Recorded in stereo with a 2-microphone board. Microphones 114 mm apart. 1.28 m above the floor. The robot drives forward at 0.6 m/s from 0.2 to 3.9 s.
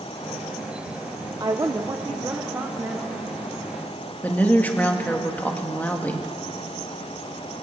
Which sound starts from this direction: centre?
A woman speaking, at 4.2 s.